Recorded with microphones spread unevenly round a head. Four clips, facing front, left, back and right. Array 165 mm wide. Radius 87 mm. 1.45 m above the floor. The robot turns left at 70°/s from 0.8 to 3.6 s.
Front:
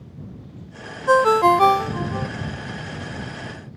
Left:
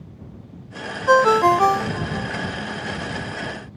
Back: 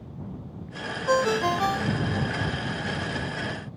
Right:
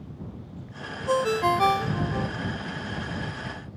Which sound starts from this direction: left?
A ringtone, at 1.1 s.